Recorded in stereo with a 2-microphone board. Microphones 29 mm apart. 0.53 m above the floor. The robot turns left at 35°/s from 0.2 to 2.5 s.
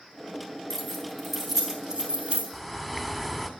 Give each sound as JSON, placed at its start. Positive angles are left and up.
{"t": 0.7, "sound": "keys jangling", "side_deg": 15, "distance_m": 4.0}
{"t": 2.5, "sound": "a bird", "side_deg": 5, "distance_m": 1.8}